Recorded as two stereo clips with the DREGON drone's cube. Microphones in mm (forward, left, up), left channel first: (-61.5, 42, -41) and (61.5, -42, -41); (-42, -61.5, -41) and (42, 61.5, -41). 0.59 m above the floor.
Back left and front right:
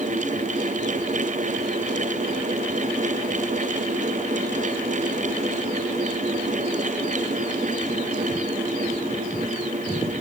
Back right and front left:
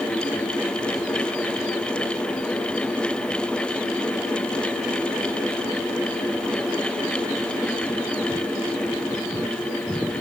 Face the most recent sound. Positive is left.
No sound to turn to.